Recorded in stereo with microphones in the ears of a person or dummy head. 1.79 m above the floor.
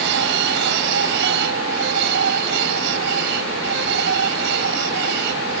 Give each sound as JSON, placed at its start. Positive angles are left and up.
{"t": 0.0, "sound": "a machine running", "side_deg": -55}